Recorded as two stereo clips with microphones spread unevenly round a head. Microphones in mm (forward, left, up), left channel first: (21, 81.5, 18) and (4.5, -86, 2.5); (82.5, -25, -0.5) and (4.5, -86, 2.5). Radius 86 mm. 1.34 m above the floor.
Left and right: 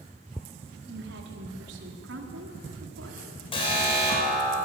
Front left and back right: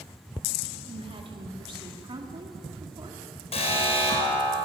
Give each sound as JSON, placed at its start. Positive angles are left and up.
{"t": 0.9, "sound": "a woman speaking", "azimuth_deg": -120, "distance_m": 3.5}
{"t": 3.5, "sound": "an alarm", "azimuth_deg": 25, "distance_m": 7.0}